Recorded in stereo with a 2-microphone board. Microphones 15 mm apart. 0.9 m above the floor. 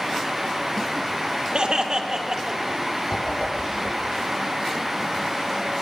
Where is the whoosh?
55° left (ahead or behind), 6.5 m.